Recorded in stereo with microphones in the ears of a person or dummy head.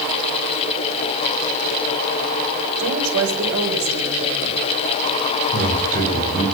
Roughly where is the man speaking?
Right.